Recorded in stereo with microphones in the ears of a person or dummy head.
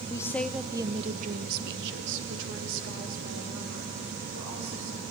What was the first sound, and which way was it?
A woman speaking, 25° left (ahead or behind).